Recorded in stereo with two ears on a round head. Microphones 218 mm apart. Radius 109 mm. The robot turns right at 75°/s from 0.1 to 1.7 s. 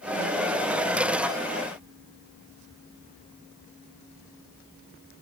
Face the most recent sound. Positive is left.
No sound to turn to.